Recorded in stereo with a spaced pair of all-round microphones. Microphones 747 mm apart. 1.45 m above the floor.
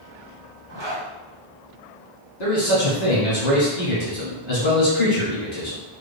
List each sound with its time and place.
0.7 s a zipper: 40° right (ahead or behind), 1.5 m
2.4 s a man speaking: 65° left (ahead or behind), 1.7 m